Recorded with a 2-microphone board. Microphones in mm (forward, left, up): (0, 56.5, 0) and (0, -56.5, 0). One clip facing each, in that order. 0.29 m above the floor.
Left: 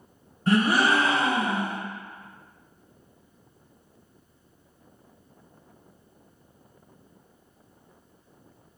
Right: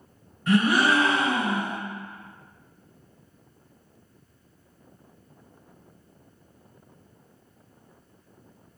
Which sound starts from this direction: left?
A gasp, at 0.5 s.